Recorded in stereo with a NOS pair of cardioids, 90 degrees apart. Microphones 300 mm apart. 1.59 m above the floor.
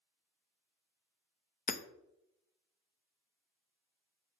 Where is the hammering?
30° left, 0.7 m.